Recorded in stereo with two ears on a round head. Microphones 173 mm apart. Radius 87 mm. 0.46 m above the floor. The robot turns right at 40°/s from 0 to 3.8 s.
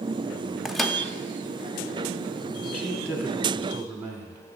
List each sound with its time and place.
0.7 s a microwave: centre (ahead or behind), 0.6 m; by 1.0 s 5° left (ahead or behind), 0.6 m
2.6 s a man speaking: 155° left, 1.2 m; by 4.4 s 160° right, 1.2 m